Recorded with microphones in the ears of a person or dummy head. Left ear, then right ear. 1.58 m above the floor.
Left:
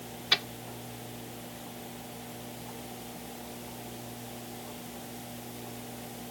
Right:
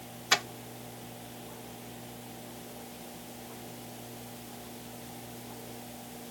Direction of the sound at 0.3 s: 35° right (ahead or behind).